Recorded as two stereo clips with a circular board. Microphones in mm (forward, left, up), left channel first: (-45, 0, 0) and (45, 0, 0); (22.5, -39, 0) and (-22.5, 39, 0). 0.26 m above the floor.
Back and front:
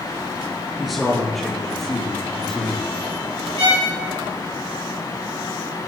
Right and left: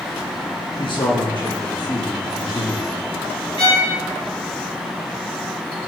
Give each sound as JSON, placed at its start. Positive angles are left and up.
{"t": 0.8, "sound": "a man speaking", "azimuth_deg": -85, "distance_m": 3.0}
{"t": 3.6, "sound": "a violin", "azimuth_deg": -25, "distance_m": 4.0}